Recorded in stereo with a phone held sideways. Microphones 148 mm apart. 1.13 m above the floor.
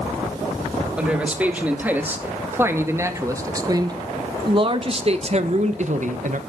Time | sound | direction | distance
1.0 | a man speaking | 5° right (ahead or behind) | 3 m